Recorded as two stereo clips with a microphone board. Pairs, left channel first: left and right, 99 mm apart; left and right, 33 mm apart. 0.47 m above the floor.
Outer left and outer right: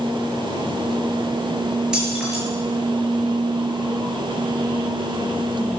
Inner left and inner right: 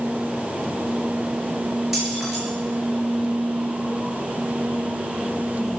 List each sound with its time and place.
1.9 s keys jangling: 5° right (ahead or behind), 6 m